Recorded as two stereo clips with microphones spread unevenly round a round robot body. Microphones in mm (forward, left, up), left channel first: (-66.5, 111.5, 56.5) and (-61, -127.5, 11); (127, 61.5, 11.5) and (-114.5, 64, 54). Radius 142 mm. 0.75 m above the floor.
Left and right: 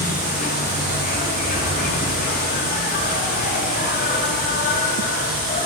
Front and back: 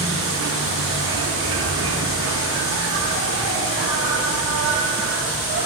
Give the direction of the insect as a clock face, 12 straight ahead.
7 o'clock.